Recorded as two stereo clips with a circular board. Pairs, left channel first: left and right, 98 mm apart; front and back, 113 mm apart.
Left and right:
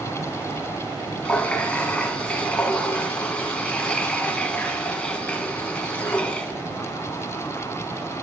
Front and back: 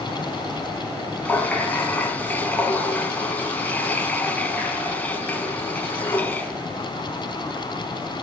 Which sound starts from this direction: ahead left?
A running tap, at 1.2 s.